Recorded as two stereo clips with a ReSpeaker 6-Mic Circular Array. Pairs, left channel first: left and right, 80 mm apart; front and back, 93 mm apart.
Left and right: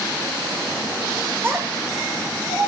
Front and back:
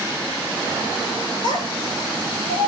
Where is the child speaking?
30° right, 2.5 m; by 2.7 s 65° right, 1.7 m.